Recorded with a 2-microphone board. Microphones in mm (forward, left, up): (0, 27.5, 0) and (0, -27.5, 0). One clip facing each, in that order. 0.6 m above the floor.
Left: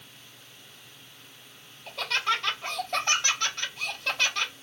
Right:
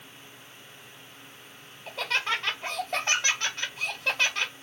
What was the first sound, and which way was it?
Laughter, 15° right (ahead or behind).